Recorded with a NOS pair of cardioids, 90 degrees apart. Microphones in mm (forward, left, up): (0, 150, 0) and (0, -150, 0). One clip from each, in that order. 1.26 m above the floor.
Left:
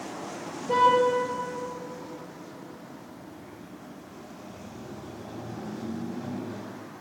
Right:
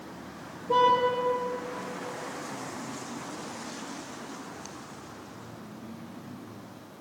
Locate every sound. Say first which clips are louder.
0.7 s a car horn: left 1 dB; 60° left, 10 m